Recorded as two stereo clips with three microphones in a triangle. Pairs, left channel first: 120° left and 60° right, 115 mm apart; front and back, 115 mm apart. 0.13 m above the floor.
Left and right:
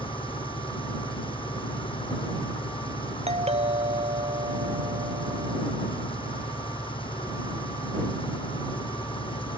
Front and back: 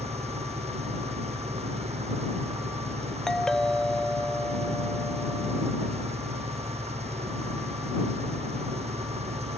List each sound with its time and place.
0.0 s an engine running: 160° left
3.3 s a doorbell: 85° right